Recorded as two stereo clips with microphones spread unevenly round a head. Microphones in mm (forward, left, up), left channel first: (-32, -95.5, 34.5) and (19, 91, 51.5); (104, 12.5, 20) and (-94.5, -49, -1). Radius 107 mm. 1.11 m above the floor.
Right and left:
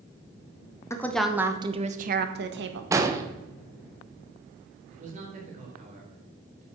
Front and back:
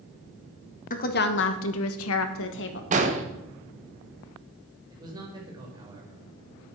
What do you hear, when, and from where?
0.9 s a woman speaking: 35° right, 1.3 m; by 2.8 s 55° left, 1.8 m
2.9 s an explosion: 150° left, 1.3 m
4.9 s a man speaking: 125° left, 4 m